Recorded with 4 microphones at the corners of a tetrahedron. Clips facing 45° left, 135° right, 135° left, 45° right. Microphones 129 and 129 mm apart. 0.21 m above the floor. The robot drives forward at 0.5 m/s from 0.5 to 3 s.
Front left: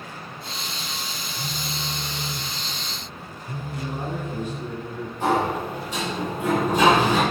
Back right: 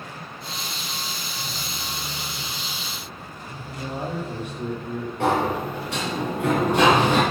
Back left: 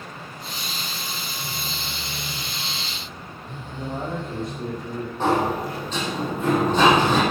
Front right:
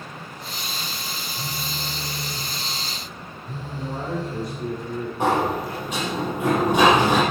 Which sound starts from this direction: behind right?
A sliding door, at 5.2 s.